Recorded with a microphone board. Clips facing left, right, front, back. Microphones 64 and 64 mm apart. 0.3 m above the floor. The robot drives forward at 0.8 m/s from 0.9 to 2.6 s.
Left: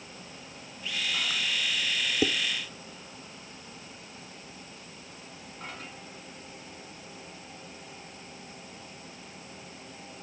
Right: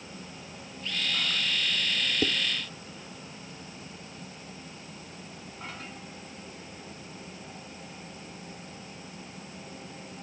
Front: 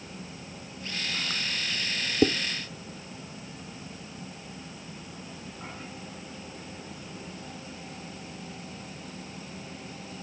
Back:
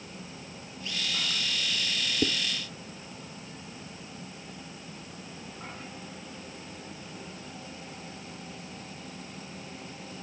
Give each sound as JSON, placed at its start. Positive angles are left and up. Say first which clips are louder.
{"t": 2.2, "sound": "dishes clattering", "louder": "left 2 dB, front 7 dB", "azimuth_deg": 15}